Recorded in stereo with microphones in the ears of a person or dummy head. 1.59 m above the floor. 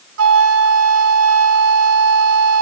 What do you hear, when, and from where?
0.2 s a flute: 75° right (ahead or behind), 1.1 m